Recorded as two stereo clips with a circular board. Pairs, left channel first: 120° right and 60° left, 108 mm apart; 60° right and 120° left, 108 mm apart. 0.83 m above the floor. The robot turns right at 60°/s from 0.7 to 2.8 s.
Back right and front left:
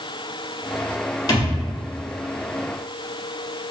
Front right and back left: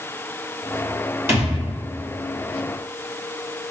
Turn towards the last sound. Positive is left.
turn(degrees=-85)